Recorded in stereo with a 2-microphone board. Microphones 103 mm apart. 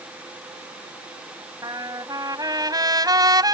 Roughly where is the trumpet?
Right.